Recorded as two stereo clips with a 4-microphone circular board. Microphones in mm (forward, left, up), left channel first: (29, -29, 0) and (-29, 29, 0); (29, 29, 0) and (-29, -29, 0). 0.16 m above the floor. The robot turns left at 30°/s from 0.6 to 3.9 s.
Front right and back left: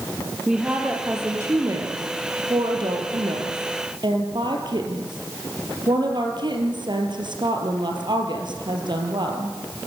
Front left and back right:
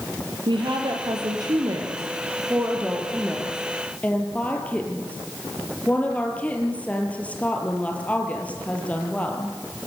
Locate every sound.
0.5 s a woman speaking: 145° right, 4.5 m; by 9.6 s 115° left, 4.5 m